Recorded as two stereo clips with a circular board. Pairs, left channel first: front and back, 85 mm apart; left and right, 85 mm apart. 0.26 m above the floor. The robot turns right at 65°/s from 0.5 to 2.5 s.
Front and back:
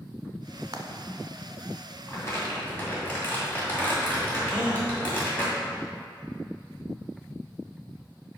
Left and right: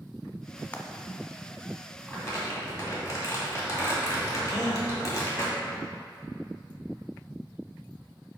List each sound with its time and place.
0.7 s frying: 160° left, 0.7 m; by 0.8 s 165° left, 0.7 m
2.1 s crumpling: 30° left, 2 m; by 5.4 s 60° left, 2 m
4.4 s a gasp: 100° left, 2.0 m